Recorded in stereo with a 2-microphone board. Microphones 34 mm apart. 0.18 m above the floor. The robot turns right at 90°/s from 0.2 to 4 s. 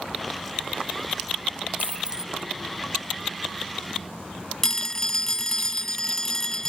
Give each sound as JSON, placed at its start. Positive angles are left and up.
{"t": 1.8, "sound": "a dropped coin", "azimuth_deg": -55}
{"t": 4.6, "sound": "a phone ringing", "side_deg": 15}